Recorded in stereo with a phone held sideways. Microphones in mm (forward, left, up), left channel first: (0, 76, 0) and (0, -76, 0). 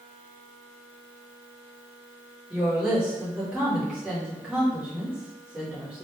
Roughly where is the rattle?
No rattle in this recording.